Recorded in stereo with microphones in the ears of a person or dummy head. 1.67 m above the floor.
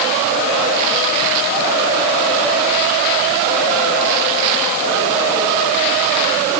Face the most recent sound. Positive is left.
No sound to turn to.